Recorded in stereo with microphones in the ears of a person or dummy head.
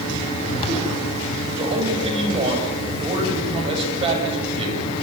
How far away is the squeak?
No squeak in this recording.